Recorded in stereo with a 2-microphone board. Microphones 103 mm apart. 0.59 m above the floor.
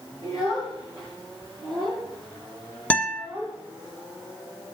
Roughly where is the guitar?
Centre.